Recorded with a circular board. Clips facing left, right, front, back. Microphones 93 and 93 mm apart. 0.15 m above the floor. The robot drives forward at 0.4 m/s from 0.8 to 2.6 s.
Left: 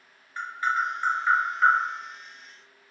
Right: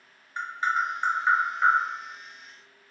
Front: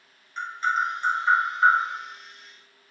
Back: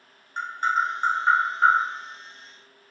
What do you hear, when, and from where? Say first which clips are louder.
0.4 s tapping: even, back 1 dB; 155° right, 1.0 m; by 1.8 s 160° right, 1.3 m